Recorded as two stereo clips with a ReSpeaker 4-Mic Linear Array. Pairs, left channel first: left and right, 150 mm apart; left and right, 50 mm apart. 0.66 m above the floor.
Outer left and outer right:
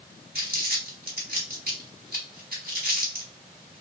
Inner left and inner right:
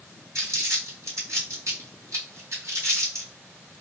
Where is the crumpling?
80° right, 1.8 m.